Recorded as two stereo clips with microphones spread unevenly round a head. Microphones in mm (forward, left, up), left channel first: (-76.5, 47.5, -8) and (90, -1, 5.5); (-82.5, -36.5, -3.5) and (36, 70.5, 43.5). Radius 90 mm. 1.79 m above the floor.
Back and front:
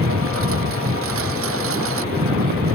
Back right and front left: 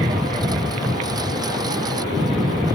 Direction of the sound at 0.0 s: 25° right.